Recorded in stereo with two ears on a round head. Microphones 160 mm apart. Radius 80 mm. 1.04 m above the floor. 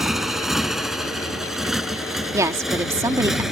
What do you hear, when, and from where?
0.0 s a motorcycle: centre (ahead or behind)
2.3 s a woman speaking: 15° right (ahead or behind)